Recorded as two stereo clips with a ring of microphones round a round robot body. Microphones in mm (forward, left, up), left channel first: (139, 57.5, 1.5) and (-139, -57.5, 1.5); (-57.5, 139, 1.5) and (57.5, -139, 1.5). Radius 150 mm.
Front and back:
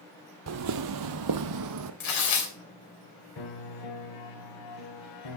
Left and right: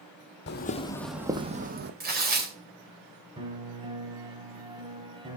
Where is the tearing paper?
10° right, 3 m.